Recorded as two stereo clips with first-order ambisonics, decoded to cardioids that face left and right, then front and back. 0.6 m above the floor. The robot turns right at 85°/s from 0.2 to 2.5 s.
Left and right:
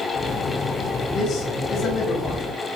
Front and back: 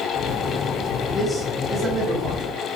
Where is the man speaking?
60° left, 1.2 m; by 2.7 s straight behind, 1.2 m.